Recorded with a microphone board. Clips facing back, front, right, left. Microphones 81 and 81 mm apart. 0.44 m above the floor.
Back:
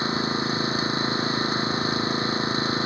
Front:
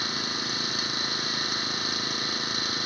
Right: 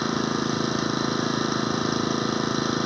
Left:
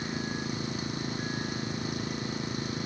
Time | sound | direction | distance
0.0 | an engine running | 115° right | ?